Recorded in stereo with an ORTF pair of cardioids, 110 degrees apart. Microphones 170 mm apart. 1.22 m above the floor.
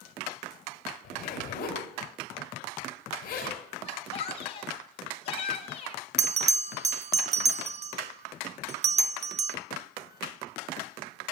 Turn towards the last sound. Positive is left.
turn(degrees=-40)